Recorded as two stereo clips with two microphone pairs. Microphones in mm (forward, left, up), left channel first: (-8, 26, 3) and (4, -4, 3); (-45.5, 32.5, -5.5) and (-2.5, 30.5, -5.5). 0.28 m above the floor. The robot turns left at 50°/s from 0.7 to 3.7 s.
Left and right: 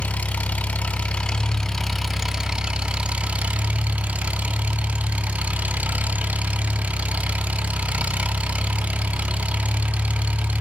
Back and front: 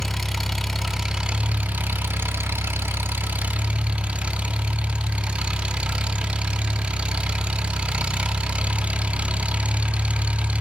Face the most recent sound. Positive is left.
turn(degrees=-60)